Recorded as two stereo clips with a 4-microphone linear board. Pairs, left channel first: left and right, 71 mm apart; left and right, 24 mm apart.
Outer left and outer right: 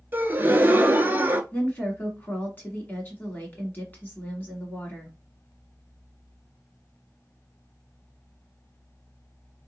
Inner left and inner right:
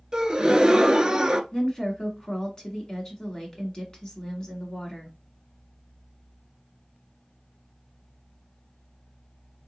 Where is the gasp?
30° right (ahead or behind), 0.6 m.